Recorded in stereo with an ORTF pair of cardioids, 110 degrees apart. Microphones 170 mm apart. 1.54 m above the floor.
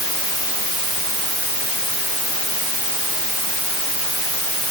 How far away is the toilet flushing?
I don't hear a toilet flushing.